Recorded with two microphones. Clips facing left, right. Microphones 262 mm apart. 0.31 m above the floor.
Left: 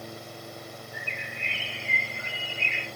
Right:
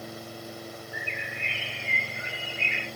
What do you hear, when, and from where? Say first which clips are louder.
0.9 s a bird: right 2 dB; 40° left (ahead or behind), 2.5 m